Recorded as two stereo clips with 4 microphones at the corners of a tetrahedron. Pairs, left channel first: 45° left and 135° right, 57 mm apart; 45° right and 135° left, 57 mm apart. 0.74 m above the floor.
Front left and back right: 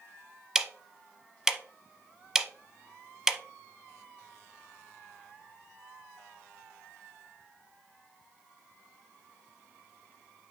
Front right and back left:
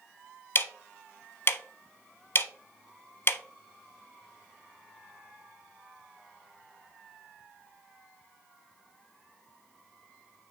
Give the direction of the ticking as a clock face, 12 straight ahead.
2 o'clock.